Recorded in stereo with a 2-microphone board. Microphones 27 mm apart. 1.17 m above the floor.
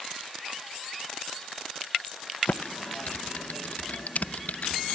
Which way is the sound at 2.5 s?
70° left (ahead or behind).